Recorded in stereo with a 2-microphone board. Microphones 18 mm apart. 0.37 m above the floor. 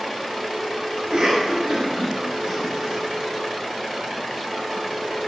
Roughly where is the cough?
Right.